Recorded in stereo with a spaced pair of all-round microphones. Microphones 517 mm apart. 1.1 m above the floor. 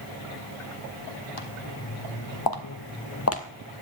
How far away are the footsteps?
About 2.0 m.